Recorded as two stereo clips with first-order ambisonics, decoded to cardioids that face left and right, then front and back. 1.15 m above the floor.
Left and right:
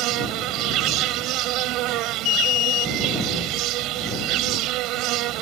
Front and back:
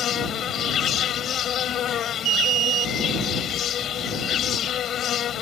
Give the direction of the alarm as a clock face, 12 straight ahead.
8 o'clock.